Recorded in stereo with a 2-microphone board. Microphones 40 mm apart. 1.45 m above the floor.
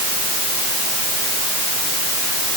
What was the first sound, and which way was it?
Only background noise.